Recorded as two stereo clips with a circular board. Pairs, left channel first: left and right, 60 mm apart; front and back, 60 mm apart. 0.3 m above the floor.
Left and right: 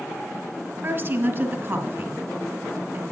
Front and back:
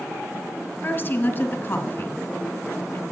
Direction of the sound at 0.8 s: 50° right.